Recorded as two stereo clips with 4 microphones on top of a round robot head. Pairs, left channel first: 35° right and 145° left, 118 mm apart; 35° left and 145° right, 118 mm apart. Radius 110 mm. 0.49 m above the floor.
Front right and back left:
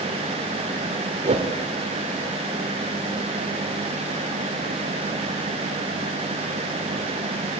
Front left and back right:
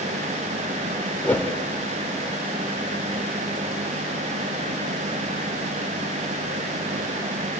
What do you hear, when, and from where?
1.2 s a whoosh: 115° left, 2 m